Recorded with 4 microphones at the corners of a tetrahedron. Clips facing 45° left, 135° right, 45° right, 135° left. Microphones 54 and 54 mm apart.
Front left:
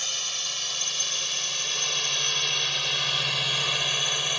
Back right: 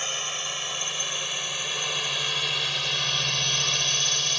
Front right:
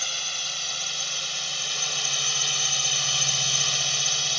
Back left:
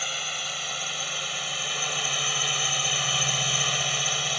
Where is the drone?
165° right; by 4.4 s 100° left.